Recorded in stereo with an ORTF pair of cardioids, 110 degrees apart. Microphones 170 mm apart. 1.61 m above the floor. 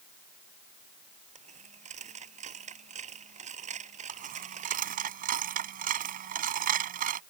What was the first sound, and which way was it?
A dropped coin, 45° right.